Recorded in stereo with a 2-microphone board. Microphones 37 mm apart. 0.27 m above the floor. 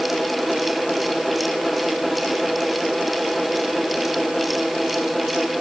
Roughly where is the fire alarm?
No fire alarm in this recording.